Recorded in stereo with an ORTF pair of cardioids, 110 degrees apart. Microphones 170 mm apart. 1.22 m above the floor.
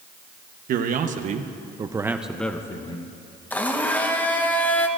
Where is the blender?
10° left, 1.1 m.